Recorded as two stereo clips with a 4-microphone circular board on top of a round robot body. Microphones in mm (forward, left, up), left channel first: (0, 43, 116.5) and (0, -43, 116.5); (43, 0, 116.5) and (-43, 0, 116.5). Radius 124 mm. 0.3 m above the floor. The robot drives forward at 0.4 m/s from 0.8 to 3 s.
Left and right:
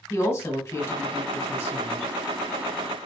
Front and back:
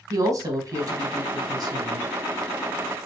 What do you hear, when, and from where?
0.1 s a woman speaking: 145° left, 1.9 m; by 2.1 s 155° left, 2.5 m